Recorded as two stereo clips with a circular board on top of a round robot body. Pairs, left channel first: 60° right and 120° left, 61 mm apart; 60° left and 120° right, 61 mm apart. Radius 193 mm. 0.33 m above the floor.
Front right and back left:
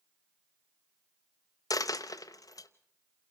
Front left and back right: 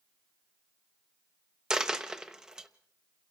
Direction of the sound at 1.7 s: 40° right.